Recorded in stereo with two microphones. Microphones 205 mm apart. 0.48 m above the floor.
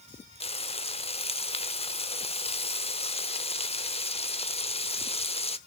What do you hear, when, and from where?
0.4 s frying: 25° left (ahead or behind), 0.7 m